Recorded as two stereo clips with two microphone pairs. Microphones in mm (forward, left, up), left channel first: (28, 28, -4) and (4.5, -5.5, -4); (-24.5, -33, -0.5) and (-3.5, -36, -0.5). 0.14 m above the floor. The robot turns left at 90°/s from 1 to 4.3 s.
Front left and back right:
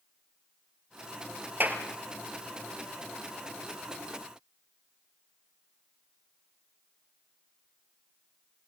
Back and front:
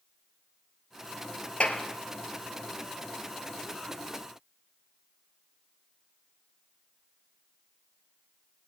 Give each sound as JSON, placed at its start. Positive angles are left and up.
{"t": 1.6, "sound": "a clap", "azimuth_deg": -160, "distance_m": 2.5}